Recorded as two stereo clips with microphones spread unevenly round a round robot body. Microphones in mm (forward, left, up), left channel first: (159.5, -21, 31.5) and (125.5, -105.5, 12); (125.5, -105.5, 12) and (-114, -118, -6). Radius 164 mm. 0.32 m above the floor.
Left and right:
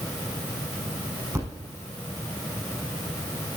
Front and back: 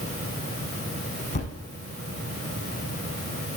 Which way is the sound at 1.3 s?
60° right.